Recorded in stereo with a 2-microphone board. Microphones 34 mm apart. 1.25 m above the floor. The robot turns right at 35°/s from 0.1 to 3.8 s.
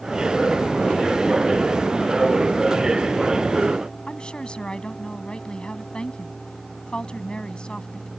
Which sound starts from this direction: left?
A woman speaking, at 4.1 s.